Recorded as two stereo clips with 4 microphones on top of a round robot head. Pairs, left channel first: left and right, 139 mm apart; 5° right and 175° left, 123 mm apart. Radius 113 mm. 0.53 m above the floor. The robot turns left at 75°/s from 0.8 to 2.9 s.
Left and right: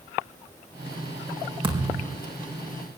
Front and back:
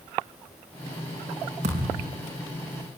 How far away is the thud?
About 5 m.